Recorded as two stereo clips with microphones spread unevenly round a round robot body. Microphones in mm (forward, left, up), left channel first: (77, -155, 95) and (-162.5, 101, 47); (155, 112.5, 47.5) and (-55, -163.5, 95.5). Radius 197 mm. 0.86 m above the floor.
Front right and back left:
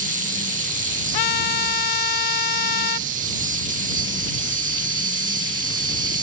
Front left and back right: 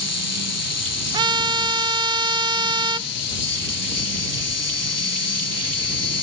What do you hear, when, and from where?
0.0 s an insect: 75° left
1.1 s a trumpet: 45° right